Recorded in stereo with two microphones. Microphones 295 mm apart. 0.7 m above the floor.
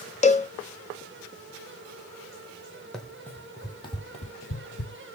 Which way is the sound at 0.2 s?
25° left (ahead or behind).